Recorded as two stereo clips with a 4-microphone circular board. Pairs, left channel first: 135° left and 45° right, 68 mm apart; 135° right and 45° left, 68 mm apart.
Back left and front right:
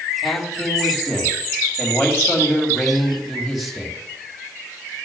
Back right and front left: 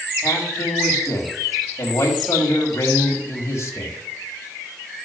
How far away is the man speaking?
About 2.0 m.